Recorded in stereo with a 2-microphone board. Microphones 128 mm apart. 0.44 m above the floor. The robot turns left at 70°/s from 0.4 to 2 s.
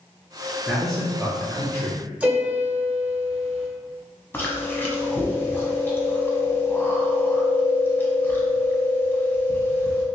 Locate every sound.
0.7 s a man speaking: 5° right (ahead or behind), 0.7 m; by 2.0 s 20° left (ahead or behind), 0.7 m
2.2 s a piano: 10° right (ahead or behind), 0.9 m
4.3 s chewing: 15° left (ahead or behind), 0.7 m